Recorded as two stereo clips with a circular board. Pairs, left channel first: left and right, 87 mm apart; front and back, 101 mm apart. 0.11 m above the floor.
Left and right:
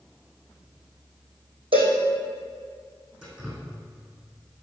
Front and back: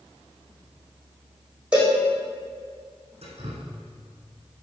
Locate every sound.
1.7 s a cowbell: 100° right, 4 m
3.2 s dripping: 170° right, 3.5 m